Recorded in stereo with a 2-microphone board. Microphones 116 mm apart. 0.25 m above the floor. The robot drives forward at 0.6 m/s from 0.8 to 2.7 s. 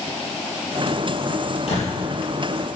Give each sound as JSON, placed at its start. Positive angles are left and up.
{"t": 1.7, "sound": "a door slam", "side_deg": 65, "distance_m": 5.0}